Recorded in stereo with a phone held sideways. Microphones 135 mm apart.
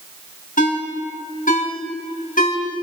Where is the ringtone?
80° left, 4.5 m.